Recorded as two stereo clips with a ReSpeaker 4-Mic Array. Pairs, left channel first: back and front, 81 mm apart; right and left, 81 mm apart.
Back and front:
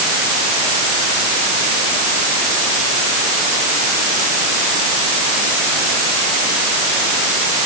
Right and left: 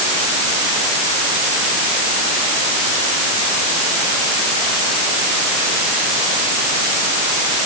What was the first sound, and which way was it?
Only background noise.